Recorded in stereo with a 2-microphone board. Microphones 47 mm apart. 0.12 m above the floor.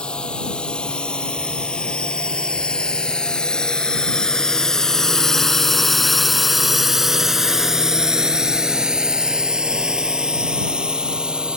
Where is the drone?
20° left (ahead or behind); by 11.6 s 20° right (ahead or behind).